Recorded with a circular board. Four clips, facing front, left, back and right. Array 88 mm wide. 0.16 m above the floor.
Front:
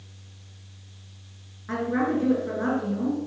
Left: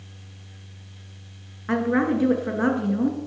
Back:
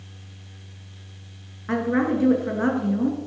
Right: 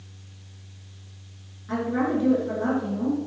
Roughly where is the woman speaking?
Behind left.